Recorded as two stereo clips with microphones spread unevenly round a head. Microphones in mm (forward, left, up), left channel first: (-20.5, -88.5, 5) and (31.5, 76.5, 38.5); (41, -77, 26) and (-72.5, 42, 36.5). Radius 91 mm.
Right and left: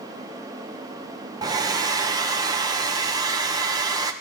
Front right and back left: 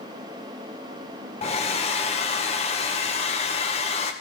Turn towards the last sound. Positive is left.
turn(degrees=10)